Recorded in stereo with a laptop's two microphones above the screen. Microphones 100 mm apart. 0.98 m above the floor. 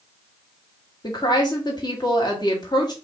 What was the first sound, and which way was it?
A woman speaking, 45° left (ahead or behind).